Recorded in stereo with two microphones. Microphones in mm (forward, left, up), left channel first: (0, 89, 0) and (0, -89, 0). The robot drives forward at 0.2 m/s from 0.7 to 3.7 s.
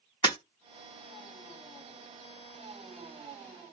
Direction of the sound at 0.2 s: 25° left (ahead or behind).